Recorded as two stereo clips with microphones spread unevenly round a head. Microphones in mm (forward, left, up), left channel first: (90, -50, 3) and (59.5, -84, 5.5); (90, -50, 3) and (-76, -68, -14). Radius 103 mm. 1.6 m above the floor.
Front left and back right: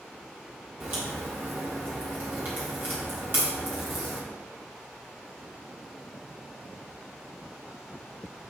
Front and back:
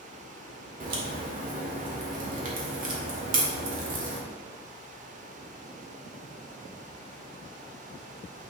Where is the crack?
160° right, 1.4 m.